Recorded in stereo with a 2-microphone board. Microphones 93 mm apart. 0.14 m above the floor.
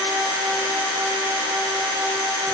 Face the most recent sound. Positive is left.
No sound to turn to.